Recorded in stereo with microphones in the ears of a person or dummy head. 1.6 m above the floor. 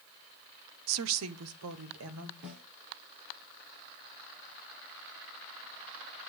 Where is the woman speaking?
80° right, 0.6 m.